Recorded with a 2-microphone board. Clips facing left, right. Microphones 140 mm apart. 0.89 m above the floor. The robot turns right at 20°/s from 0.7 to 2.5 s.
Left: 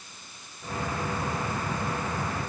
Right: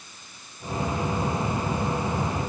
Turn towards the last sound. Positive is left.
No sound to turn to.